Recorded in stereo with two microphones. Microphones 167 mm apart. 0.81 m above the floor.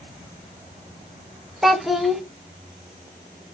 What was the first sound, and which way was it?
A child speaking, centre (ahead or behind).